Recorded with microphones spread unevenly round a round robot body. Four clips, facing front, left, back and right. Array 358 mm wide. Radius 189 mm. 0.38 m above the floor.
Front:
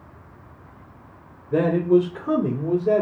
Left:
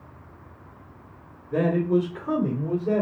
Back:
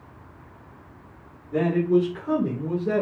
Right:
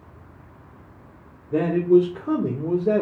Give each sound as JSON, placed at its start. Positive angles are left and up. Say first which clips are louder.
{"t": 1.5, "sound": "a man speaking", "louder": "right 5 dB, front 3 dB", "azimuth_deg": -5, "distance_m": 1.4}